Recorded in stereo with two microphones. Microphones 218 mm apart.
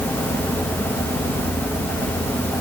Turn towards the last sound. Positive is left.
No sound to turn to.